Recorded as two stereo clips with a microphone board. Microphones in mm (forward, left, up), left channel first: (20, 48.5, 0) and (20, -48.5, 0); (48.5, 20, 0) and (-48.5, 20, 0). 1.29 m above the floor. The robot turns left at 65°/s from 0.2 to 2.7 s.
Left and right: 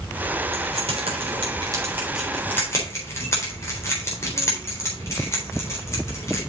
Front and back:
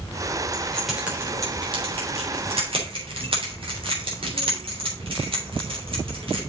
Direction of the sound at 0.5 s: 65° right.